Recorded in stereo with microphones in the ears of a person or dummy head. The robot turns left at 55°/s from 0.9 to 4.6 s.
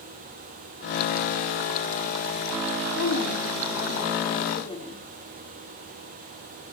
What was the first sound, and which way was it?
A woman speaking, 115° left.